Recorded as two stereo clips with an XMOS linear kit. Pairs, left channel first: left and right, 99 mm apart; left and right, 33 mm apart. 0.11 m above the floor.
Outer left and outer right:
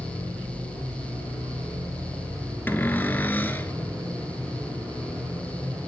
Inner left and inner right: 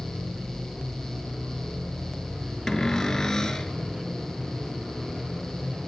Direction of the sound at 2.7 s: 20° left (ahead or behind).